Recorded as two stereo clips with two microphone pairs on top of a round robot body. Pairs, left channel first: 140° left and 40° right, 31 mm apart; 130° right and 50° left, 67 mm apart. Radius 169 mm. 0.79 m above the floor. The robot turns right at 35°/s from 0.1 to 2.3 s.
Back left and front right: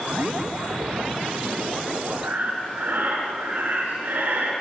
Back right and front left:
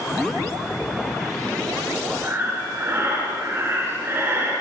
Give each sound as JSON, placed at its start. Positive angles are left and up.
{"t": 2.2, "sound": "breathing", "azimuth_deg": -10, "distance_m": 3.5}